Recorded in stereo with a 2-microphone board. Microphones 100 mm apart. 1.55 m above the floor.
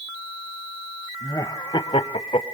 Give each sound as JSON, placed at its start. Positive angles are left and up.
{"t": 1.2, "sound": "laughter", "side_deg": 35, "distance_m": 1.9}